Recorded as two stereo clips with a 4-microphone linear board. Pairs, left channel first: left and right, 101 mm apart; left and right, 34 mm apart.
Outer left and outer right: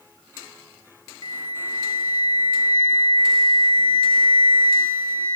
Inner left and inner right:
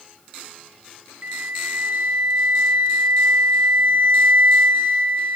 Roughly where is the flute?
Right.